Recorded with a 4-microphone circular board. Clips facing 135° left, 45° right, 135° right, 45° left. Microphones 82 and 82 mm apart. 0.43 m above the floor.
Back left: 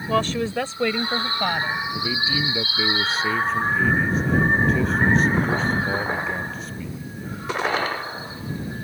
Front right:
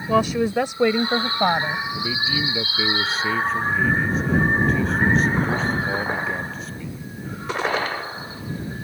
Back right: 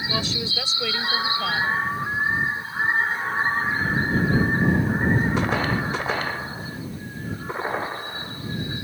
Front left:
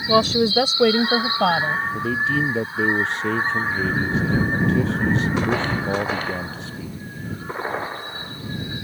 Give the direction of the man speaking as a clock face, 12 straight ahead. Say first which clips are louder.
Even, front left 2 dB; 10 o'clock.